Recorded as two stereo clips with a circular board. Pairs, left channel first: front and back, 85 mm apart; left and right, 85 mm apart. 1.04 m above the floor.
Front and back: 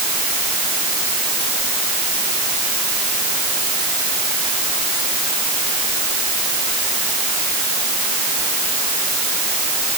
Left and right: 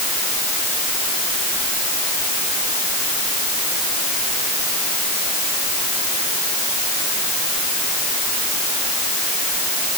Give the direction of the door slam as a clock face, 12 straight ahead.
I don't hear a door slam.